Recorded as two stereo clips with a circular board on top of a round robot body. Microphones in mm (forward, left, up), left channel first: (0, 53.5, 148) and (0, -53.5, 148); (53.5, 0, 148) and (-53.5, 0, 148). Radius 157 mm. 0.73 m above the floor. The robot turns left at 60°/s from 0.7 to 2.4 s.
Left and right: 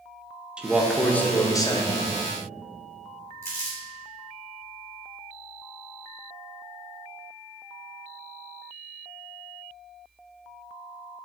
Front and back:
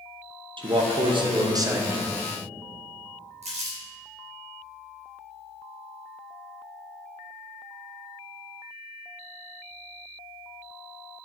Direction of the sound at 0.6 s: 170° right.